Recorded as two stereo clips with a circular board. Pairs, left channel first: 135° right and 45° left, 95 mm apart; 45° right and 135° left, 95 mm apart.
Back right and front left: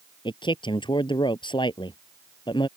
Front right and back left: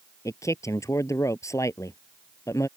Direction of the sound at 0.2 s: 105° right.